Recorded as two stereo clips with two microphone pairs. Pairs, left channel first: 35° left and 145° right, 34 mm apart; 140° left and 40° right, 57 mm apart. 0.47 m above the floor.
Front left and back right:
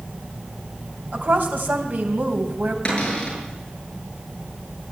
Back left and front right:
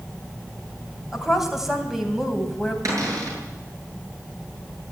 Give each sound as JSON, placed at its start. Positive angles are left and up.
{"t": 1.1, "sound": "a woman speaking", "azimuth_deg": -120, "distance_m": 3.5}
{"t": 2.9, "sound": "a cupboard door", "azimuth_deg": -25, "distance_m": 8.0}